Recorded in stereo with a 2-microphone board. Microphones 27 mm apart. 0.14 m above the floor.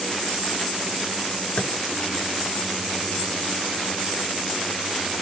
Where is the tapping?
50° left (ahead or behind), 0.7 m.